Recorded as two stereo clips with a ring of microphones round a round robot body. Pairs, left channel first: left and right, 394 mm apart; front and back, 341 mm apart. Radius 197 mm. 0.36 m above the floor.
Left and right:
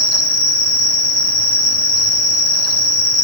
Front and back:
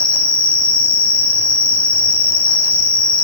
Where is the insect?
25° left, 5 m.